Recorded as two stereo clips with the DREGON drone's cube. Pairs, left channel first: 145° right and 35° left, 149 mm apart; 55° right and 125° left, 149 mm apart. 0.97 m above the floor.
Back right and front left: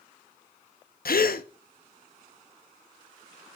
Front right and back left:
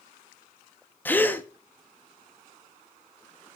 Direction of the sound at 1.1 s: 135° right.